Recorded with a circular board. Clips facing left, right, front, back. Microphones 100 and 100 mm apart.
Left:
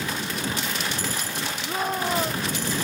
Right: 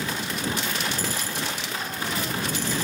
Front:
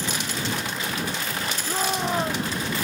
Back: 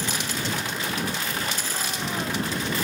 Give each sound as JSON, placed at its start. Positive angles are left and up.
{"t": 1.6, "sound": "a shout", "azimuth_deg": 50}